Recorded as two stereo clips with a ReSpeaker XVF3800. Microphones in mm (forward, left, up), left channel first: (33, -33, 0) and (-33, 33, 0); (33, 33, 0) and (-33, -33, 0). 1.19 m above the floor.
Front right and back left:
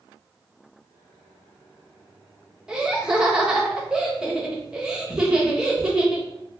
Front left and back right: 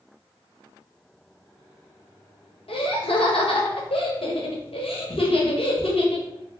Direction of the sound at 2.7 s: 55° left.